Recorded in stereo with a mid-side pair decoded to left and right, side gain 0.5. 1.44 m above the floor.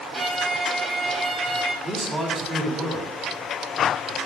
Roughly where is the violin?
Ahead right.